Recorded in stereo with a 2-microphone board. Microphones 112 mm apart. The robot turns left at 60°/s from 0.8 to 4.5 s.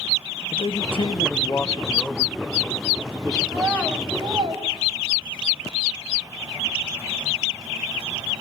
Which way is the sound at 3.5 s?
5° left (ahead or behind).